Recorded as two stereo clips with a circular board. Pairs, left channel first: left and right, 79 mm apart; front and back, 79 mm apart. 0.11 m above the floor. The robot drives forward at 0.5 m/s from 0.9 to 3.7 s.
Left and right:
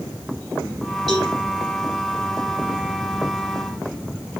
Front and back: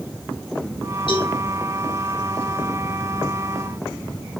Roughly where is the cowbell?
Ahead.